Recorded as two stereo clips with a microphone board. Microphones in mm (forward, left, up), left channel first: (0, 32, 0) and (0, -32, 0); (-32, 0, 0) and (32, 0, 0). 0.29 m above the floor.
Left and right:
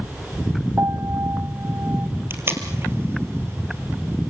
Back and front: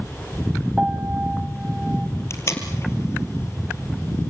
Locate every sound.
0.8 s a piano: 65° right, 1.4 m
2.3 s tape being pulled: 140° right, 2.5 m